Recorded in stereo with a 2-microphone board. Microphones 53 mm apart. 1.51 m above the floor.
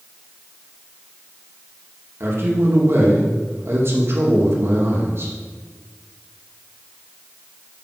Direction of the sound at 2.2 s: 50° right (ahead or behind).